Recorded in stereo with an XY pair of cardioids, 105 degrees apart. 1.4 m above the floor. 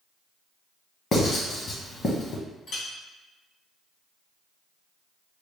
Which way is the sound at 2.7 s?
65° left.